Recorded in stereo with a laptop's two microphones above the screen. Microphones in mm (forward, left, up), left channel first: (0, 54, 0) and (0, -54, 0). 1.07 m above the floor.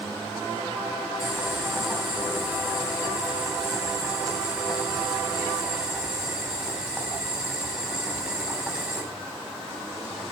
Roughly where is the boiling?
Centre.